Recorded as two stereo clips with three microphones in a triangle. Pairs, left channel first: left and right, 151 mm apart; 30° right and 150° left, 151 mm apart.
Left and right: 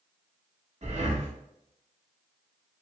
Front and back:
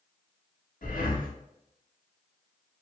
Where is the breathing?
50° right, 0.7 m.